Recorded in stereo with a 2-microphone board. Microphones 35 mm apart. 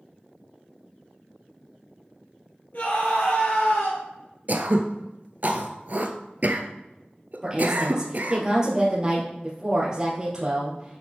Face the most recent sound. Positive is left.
turn(degrees=-20)  # may be behind; listen again after turning